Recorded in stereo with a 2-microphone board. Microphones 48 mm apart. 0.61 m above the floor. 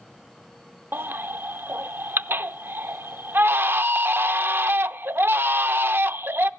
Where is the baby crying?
50° right (ahead or behind), 0.5 m.